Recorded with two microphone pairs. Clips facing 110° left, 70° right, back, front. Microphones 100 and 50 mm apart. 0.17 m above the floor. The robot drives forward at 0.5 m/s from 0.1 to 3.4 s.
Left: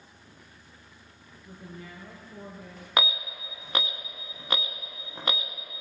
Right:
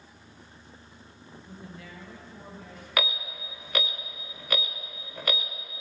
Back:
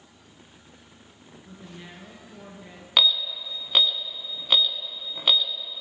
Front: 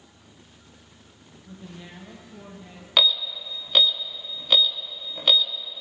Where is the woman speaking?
110° left, 2.5 m; by 2.9 s 125° left, 3 m.